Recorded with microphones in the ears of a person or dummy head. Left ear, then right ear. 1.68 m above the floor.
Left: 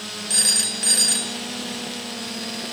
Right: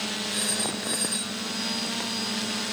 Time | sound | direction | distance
0.3 | a phone ringing | 65° left (ahead or behind) | 4.5 m